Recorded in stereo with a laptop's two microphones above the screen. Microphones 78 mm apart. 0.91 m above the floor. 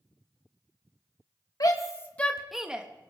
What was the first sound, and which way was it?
A shout, 50° left (ahead or behind).